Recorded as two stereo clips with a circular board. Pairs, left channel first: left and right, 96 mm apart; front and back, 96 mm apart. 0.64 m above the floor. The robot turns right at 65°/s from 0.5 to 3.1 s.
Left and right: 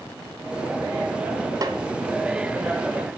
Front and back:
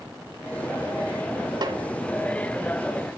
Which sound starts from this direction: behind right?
A snare drum, at 1.6 s.